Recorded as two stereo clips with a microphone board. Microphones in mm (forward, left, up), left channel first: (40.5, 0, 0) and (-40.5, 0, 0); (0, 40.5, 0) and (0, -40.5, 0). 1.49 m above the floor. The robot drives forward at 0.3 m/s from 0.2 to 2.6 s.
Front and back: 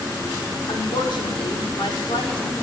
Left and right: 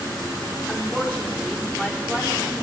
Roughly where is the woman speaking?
Ahead.